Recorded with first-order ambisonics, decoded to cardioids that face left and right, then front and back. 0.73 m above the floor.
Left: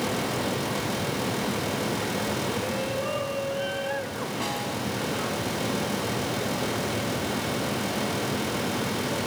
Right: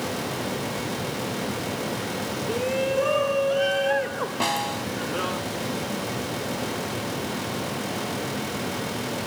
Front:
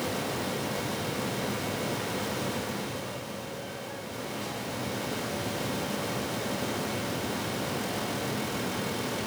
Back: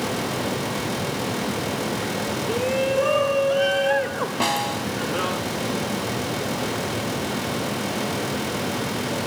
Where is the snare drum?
155° right.